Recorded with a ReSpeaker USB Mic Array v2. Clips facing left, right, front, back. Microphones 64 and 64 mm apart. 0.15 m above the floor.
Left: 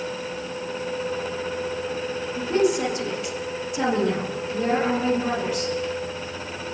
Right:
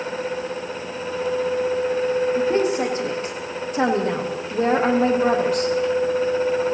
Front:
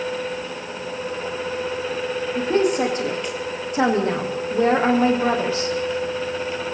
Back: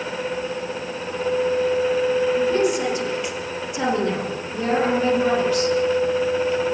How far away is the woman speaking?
About 6.5 m.